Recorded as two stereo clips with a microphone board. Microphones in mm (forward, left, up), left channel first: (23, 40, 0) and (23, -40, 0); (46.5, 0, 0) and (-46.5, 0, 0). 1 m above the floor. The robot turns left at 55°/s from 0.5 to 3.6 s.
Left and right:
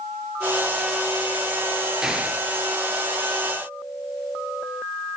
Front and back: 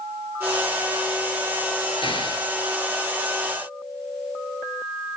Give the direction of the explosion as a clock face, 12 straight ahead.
12 o'clock.